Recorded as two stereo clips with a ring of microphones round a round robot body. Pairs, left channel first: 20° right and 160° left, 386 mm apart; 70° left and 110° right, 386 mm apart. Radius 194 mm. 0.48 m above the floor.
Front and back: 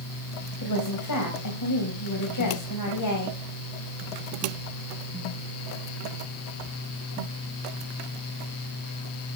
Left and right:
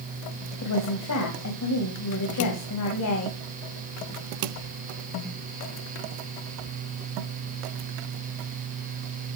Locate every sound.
0.6 s a woman speaking: 20° left, 3 m